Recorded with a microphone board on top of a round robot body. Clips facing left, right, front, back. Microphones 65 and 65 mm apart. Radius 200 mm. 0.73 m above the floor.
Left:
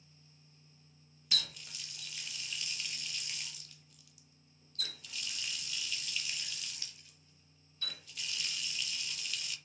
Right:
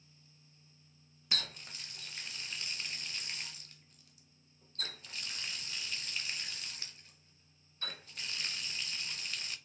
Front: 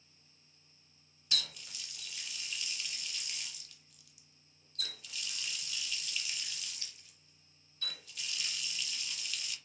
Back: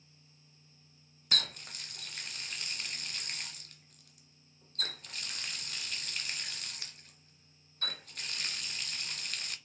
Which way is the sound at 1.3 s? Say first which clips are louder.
Even, back 4 dB; 140° right.